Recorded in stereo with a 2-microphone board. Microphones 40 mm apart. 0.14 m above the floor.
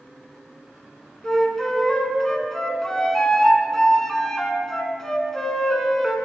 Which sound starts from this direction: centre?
A flute, at 1.2 s.